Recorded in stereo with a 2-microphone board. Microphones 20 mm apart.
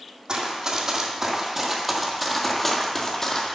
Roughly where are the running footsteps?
Right.